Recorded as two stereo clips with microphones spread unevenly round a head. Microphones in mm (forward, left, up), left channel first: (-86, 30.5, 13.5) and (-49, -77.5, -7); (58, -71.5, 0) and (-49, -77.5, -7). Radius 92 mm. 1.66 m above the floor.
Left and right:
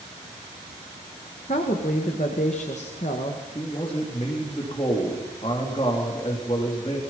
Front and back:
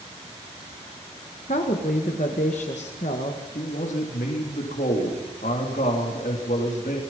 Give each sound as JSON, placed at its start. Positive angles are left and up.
{"t": 1.5, "sound": "a woman speaking", "azimuth_deg": 55, "distance_m": 2.0}
{"t": 3.5, "sound": "a man speaking", "azimuth_deg": 45, "distance_m": 3.0}